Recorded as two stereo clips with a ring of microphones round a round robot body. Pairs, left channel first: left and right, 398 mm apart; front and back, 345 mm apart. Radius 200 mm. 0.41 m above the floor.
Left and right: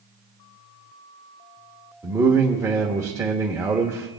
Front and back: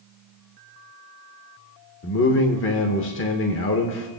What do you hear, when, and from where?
2.0 s a man speaking: 10° right, 1.0 m